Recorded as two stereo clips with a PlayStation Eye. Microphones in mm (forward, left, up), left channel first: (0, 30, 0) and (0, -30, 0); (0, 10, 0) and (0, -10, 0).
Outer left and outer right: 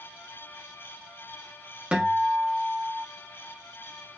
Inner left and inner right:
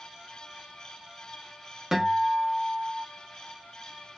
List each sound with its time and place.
1.9 s a guitar: 20° right (ahead or behind), 1.0 m